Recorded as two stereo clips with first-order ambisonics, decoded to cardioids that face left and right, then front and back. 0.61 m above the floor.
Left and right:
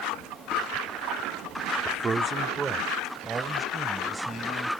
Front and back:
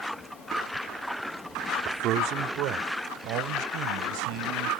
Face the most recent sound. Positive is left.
turn(degrees=-170)